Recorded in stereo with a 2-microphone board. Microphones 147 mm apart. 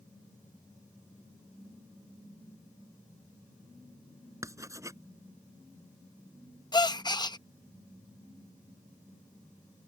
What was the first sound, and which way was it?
Writing, 20° right (ahead or behind).